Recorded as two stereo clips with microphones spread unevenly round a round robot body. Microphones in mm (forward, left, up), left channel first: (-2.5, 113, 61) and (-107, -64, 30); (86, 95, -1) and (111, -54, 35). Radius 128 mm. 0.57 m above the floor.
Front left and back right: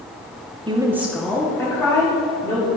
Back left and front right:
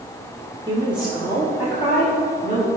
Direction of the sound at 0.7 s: 145° right.